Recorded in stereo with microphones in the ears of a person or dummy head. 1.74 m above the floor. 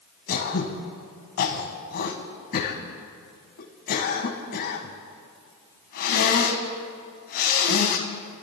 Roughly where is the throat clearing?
Left.